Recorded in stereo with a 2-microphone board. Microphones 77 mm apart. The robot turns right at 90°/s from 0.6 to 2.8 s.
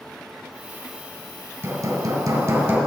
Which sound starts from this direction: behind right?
Hammering, at 1.6 s.